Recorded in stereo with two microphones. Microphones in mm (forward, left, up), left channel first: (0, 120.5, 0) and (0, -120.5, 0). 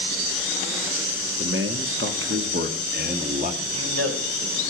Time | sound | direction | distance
1.4 | a man speaking | 55° right (ahead or behind) | 1.6 m
3.6 | a man speaking | 75° right (ahead or behind) | 4 m